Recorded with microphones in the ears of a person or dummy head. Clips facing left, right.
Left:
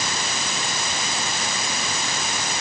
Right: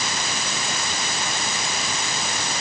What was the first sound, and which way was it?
Only background noise.